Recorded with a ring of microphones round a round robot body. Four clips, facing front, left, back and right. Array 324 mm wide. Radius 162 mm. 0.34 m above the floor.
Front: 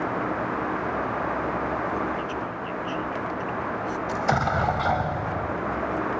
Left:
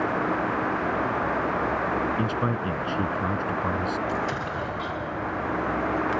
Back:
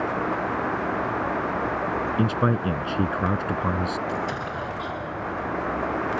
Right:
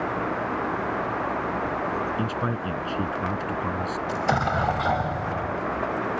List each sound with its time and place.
2.2 s a man speaking: straight behind
4.1 s an explosion: 45° right